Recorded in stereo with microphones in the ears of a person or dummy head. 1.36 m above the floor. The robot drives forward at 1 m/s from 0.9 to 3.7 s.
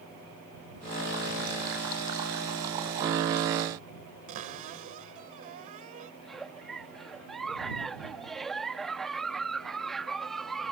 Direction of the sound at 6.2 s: Centre (ahead or behind).